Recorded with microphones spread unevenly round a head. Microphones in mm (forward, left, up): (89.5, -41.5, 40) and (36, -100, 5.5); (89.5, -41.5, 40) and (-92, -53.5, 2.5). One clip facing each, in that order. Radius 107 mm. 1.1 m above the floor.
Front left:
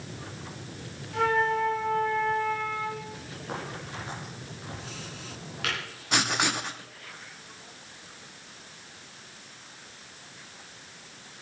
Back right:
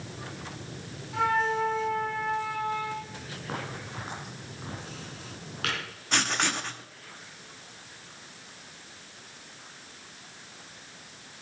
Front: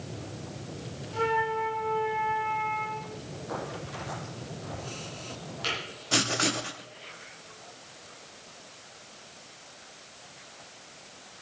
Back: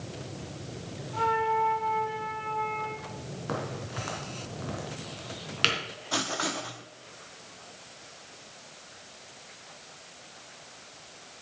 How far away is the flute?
About 3.5 m.